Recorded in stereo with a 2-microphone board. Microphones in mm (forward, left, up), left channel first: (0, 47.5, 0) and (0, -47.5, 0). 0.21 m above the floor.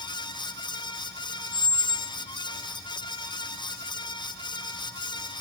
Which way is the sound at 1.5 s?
55° right (ahead or behind).